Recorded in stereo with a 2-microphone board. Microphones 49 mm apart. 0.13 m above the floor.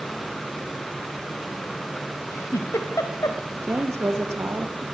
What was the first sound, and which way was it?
A giggle, 85° left.